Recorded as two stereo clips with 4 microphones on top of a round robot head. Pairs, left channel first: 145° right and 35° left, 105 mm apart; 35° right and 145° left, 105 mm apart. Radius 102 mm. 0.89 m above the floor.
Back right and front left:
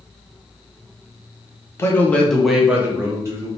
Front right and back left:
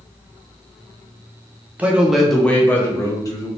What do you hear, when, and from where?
1.8 s a man speaking: 155° right, 0.8 m; by 3.5 s 5° right, 1.0 m